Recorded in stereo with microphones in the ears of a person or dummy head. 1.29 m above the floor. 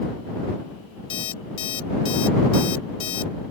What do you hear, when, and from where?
1.1 s an alarm clock: 30° left (ahead or behind)